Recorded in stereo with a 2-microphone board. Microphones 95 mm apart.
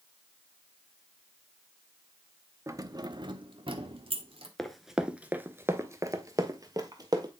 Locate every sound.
2.7 s keys jangling: 30° right (ahead or behind), 0.7 m; by 4.5 s 75° right (ahead or behind), 1.4 m
4.6 s running footsteps: 5° left (ahead or behind), 0.8 m; by 7.3 s 40° right (ahead or behind), 1.5 m